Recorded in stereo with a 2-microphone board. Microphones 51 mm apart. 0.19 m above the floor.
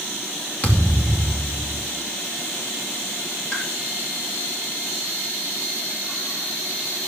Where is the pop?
25° left (ahead or behind), 3.5 m.